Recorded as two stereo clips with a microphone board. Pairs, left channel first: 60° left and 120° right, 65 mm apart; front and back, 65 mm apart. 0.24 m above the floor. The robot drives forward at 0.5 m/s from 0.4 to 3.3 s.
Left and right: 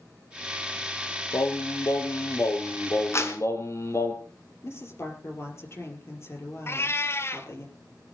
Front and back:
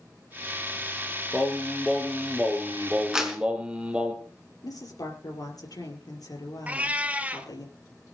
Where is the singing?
80° left, 2.5 m; by 4.1 s 105° left, 2.5 m.